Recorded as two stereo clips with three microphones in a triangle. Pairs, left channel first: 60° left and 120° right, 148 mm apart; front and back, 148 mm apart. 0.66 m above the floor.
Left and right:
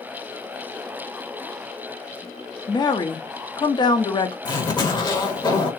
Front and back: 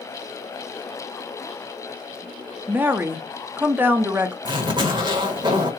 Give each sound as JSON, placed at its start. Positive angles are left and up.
{"t": 2.7, "sound": "a woman speaking", "azimuth_deg": 110, "distance_m": 0.7}
{"t": 4.5, "sound": "a zipper", "azimuth_deg": 120, "distance_m": 1.1}